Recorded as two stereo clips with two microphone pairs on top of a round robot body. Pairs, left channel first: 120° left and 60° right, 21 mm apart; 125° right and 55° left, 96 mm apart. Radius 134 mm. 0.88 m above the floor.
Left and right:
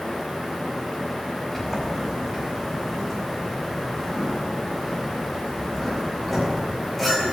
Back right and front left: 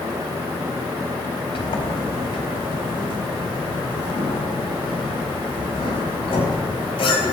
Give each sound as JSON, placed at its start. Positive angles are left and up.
{"t": 1.6, "sound": "a sliding door", "azimuth_deg": -160, "distance_m": 4.5}